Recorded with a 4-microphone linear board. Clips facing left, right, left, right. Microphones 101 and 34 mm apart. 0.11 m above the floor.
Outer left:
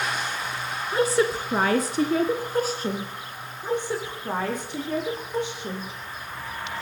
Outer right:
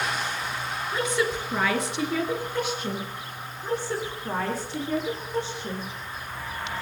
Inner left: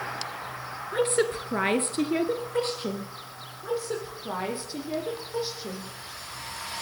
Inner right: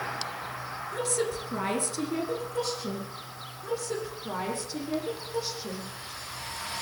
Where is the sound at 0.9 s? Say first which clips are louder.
Outer left 5 dB, inner left 6 dB; 35° left (ahead or behind), 1.5 m.